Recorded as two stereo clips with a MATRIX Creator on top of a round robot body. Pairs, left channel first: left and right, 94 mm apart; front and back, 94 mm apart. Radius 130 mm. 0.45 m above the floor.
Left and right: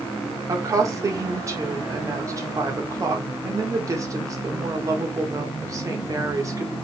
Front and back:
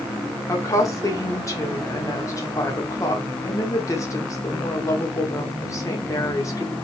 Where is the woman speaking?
45° right, 1.8 m.